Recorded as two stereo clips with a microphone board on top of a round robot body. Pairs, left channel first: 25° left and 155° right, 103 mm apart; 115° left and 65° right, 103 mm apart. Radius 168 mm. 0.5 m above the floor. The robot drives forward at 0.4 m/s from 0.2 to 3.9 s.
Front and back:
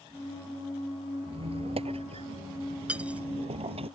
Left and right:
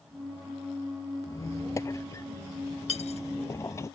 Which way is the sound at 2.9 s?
125° left.